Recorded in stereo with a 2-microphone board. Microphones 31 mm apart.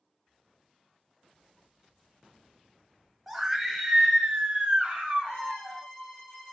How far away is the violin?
About 1.7 m.